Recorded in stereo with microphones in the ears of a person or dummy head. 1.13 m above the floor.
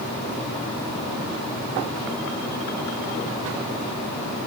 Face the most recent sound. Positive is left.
No sound to turn to.